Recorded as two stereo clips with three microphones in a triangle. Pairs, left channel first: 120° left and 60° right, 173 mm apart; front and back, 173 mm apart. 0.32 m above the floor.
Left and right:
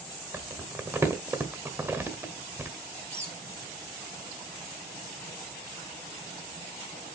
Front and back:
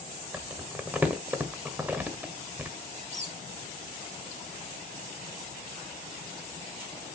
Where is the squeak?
135° right, 2.5 m.